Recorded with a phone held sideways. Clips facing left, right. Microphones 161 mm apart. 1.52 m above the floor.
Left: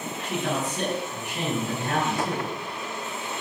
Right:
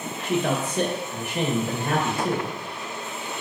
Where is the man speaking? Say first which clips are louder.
Right 4 dB; 55° right (ahead or behind), 2.0 m.